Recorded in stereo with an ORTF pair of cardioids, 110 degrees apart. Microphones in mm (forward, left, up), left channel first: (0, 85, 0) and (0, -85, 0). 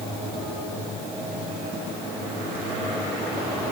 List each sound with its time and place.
Only background noise.